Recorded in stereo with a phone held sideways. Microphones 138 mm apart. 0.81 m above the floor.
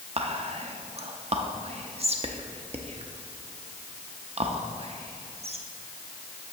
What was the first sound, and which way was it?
Whispering, 50° right (ahead or behind).